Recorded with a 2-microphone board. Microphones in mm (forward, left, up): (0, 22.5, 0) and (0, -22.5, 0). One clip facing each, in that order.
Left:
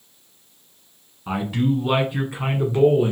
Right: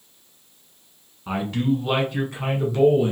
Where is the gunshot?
I don't hear a gunshot.